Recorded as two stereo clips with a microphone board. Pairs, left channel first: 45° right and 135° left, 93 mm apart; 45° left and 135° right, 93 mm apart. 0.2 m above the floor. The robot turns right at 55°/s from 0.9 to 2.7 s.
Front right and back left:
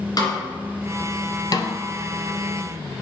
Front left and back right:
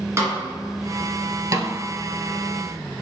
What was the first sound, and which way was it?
A snare drum, 80° right.